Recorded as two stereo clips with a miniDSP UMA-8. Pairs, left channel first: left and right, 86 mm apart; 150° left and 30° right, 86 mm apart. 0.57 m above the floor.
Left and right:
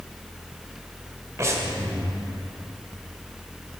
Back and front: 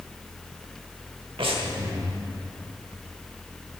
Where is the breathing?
35° right, 0.9 m.